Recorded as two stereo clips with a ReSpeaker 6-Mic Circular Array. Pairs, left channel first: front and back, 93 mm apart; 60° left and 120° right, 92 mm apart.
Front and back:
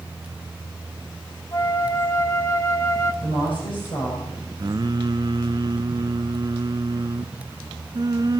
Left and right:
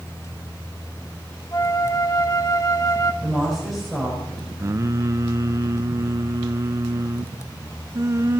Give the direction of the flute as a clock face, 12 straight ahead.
11 o'clock.